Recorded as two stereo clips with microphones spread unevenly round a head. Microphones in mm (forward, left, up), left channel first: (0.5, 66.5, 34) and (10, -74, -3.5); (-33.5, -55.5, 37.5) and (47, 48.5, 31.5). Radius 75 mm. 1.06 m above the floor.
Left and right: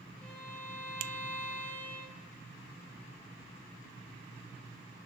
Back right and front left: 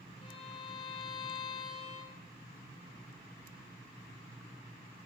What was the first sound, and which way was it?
A violin, straight behind.